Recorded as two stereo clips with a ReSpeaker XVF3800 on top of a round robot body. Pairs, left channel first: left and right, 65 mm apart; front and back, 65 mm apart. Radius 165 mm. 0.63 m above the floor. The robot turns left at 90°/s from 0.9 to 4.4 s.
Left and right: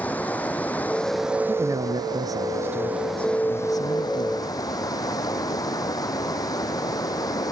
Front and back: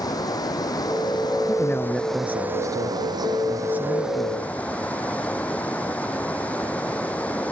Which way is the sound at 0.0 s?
25° left.